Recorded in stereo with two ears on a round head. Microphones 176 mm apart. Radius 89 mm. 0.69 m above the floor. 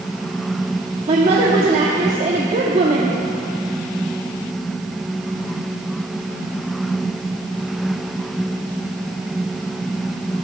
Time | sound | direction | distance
1.1 | a woman speaking | 35° right (ahead or behind) | 0.9 m